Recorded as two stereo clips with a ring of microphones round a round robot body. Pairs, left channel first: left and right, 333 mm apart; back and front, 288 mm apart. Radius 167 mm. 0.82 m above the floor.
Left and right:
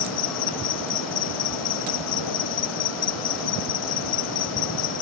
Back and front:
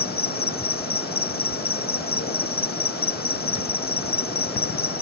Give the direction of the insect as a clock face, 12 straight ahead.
8 o'clock.